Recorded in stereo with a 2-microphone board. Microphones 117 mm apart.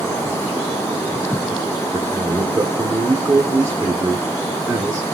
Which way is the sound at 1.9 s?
25° right (ahead or behind).